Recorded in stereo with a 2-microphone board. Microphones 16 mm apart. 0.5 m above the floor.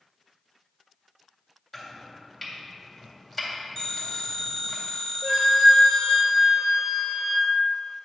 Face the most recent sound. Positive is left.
turn(degrees=-5)  # may be behind; listen again after turning